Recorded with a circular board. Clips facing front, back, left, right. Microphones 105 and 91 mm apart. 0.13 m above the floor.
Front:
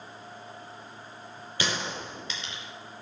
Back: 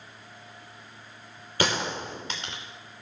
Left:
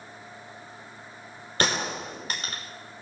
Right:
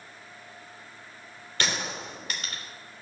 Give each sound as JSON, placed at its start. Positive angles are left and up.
{"t": 1.6, "sound": "a gunshot", "azimuth_deg": 140, "distance_m": 3.5}